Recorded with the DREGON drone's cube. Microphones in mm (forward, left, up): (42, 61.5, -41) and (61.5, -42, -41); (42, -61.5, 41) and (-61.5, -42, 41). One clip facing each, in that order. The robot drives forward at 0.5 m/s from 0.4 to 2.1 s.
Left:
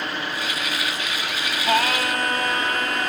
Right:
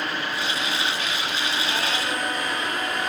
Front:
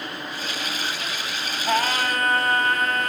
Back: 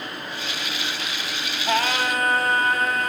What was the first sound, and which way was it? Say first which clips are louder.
Singing: left 5 dB, even; 85° left.